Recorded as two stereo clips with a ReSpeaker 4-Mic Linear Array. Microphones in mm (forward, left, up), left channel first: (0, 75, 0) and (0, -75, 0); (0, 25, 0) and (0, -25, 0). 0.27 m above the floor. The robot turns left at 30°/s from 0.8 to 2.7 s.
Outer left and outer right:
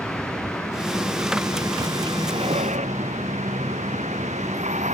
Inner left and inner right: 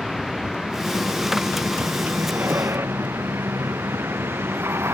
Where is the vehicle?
5° left; by 4.9 s 50° right.